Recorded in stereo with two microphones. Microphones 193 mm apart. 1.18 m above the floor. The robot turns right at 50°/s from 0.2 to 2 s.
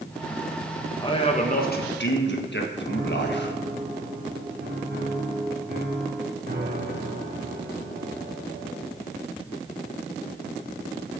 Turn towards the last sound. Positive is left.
turn(degrees=-60)  # may be behind; listen again after turning